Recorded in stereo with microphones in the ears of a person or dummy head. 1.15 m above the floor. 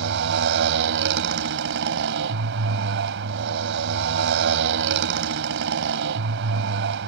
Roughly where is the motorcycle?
Right.